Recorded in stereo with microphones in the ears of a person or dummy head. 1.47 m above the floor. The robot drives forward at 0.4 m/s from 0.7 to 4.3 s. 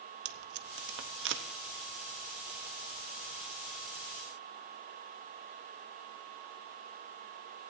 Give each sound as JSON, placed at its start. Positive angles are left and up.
{"t": 0.2, "sound": "tape being pulled", "side_deg": -70, "distance_m": 0.8}